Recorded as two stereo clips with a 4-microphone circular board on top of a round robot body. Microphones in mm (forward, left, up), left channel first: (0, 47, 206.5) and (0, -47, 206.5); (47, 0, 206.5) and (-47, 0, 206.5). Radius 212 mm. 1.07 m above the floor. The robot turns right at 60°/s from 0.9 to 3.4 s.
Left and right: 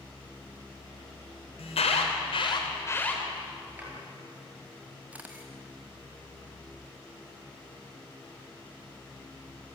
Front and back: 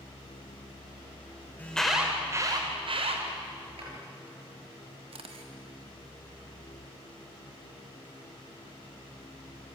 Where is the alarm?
75° left, 3 m; by 3.2 s 170° left, 3 m.